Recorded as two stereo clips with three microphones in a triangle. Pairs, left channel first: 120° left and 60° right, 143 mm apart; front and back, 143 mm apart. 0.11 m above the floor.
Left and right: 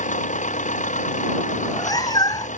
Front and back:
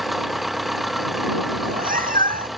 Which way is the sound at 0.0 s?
90° left.